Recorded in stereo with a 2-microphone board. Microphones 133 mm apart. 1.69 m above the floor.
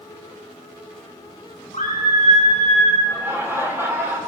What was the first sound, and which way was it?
A scream, 55° left (ahead or behind).